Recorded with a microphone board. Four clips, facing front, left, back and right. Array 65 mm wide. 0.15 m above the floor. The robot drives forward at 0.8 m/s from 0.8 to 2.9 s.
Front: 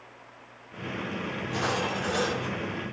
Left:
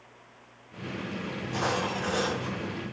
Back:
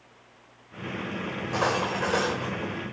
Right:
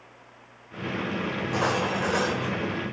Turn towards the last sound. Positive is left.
turn(degrees=-145)